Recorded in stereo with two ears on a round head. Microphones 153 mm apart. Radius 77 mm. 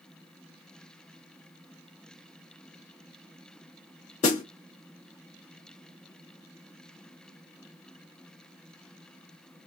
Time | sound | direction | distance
4.2 | a snare drum | 45° left (ahead or behind) | 1.8 m